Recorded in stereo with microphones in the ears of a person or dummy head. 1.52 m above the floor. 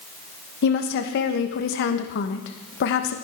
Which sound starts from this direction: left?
A woman speaking, at 0.6 s.